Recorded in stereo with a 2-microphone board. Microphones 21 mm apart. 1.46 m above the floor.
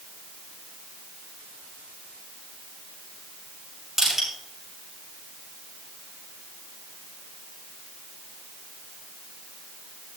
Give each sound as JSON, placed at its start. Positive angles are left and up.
{"t": 4.0, "sound": "crushing", "side_deg": -20, "distance_m": 6.0}